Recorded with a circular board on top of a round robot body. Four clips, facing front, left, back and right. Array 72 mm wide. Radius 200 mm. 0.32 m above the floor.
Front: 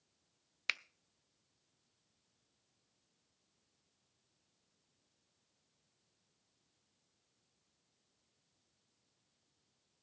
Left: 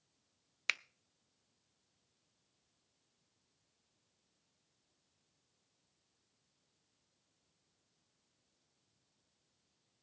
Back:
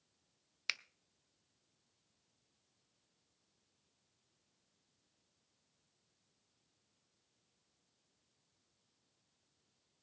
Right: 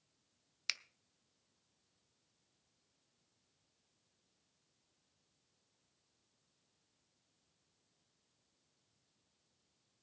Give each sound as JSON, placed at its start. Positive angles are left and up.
{"t": 0.7, "sound": "a finger snap", "azimuth_deg": 65, "distance_m": 0.7}